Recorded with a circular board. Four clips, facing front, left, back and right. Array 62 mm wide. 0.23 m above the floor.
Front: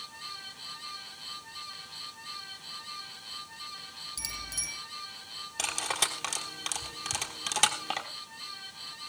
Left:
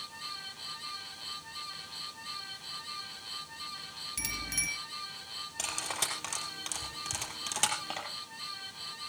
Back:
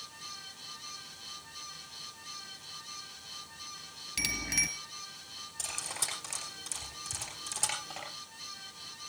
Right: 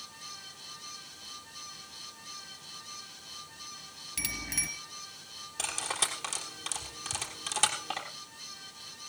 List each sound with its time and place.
4.2 s a bicycle bell: 170° right, 3 m
5.6 s cutlery clinking: 5° right, 3.5 m